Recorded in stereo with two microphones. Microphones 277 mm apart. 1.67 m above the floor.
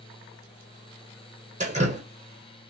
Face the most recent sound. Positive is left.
turn(degrees=-25)  # may be behind; listen again after turning